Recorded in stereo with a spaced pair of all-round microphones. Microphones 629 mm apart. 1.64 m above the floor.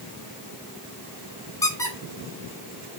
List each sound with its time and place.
1.6 s a squeak: 5° left (ahead or behind), 3.5 m